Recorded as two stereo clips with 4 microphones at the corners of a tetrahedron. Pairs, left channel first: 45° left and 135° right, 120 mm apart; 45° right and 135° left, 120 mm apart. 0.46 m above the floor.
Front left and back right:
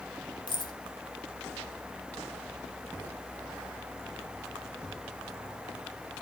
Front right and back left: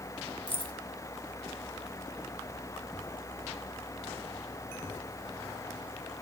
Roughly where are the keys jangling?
Ahead.